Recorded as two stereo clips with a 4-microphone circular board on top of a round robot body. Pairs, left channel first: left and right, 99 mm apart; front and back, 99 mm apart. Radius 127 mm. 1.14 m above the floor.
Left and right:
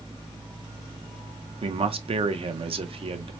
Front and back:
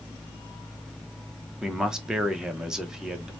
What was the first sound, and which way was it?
A man speaking, 95° right.